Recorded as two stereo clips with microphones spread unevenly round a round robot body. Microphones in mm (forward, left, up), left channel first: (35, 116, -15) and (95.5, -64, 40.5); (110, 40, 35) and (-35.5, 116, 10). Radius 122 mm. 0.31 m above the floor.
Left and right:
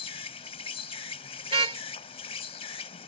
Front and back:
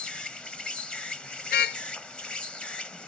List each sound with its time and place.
0.0 s an insect: 60° left
1.5 s a car horn: 10° right